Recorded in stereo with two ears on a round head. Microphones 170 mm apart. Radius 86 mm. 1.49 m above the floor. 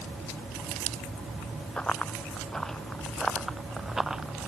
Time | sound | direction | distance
1.8 | running footsteps | 5° left (ahead or behind) | ?